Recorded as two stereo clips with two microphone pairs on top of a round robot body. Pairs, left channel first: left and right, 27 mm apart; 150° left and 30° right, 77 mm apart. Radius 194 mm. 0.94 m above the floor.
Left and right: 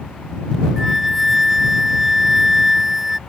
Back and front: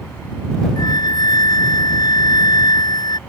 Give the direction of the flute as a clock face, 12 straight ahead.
6 o'clock.